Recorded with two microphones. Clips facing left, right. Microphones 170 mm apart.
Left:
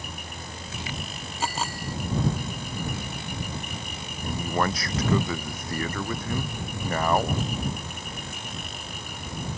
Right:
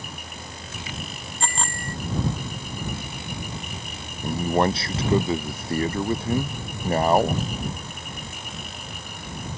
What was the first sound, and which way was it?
A bicycle bell, 5° left (ahead or behind).